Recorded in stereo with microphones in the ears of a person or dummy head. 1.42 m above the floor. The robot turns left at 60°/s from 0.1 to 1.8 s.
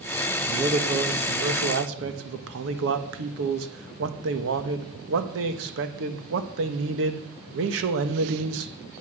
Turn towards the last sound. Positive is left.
turn(degrees=-105)